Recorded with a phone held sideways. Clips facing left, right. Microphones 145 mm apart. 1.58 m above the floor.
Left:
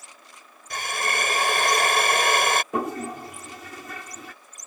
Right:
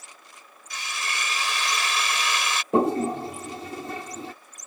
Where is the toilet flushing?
30° right (ahead or behind).